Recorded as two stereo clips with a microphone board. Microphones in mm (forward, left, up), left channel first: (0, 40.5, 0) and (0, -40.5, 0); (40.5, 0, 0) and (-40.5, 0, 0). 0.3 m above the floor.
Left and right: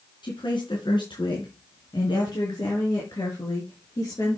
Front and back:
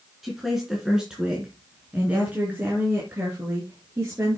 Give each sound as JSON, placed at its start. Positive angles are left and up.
{"t": 0.2, "sound": "a woman speaking", "azimuth_deg": 90, "distance_m": 3.0}